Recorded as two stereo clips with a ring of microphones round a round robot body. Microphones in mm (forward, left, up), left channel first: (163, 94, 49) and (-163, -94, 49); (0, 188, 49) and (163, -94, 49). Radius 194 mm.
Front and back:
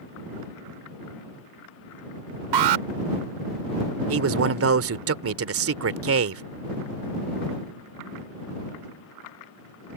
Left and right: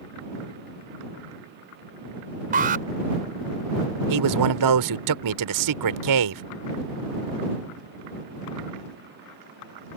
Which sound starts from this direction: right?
A man speaking, at 4.1 s.